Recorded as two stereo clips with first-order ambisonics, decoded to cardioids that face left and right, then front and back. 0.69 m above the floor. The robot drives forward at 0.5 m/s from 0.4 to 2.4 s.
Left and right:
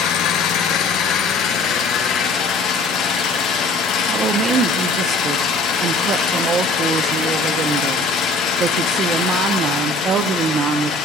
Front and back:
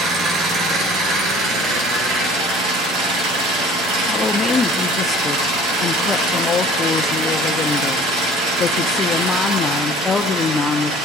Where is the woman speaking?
60° right, 0.6 m.